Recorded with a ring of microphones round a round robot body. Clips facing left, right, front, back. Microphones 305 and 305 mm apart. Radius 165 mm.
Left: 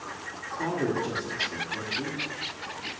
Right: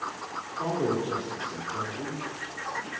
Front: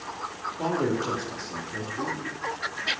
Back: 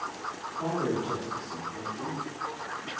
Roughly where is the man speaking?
Ahead left.